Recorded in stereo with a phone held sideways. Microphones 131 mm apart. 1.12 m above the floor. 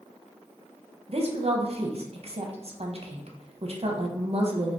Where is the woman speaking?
50° right (ahead or behind), 0.5 m.